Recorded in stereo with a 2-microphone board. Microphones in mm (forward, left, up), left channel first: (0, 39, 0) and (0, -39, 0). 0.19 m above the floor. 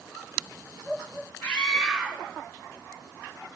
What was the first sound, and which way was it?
A scream, 20° left (ahead or behind).